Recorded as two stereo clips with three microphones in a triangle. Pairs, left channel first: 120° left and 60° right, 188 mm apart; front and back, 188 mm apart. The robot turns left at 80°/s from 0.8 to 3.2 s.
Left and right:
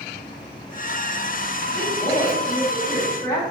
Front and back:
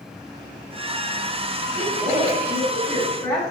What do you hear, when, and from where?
1.7 s a woman speaking: 175° left, 1.3 m; by 3.4 s 55° left, 1.3 m